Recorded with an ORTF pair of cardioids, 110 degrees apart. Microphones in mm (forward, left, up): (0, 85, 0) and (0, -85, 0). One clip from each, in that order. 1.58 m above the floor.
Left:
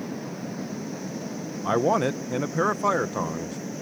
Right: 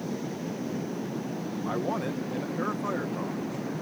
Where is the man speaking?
55° left.